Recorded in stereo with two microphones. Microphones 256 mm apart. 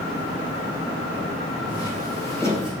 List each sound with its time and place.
1.7 s footsteps: 15° left (ahead or behind), 3.5 m; by 2.7 s 10° left (ahead or behind), 4.5 m